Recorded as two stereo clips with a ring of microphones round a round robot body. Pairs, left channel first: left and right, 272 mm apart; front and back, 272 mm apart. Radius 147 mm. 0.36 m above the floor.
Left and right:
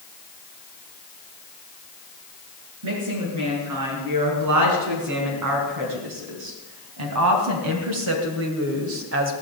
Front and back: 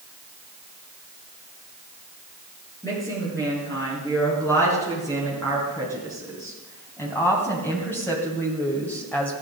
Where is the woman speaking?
80° right, 6 m; by 9.3 s 85° right, 1.8 m.